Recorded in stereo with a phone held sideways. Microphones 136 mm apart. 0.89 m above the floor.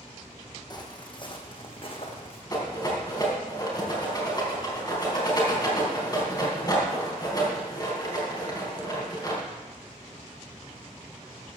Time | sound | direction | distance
0.7 | footsteps | 35° left (ahead or behind) | 1.7 m
2.5 | a rattle | 30° left (ahead or behind) | 3.5 m